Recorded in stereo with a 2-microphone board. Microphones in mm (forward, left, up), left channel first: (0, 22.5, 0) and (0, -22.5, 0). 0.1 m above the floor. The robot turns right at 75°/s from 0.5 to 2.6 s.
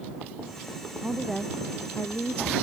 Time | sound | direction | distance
1.0 | a woman speaking | 15° right | ?